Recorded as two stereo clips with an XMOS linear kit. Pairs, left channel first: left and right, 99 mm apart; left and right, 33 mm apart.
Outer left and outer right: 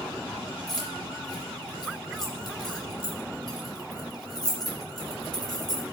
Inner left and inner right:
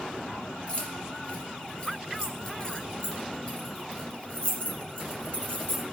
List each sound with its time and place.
0.7 s keys jangling: 40° left (ahead or behind), 1.6 m